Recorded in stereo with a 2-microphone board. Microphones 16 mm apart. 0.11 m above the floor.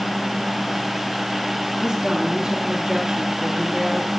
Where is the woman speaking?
30° right (ahead or behind), 2.5 m.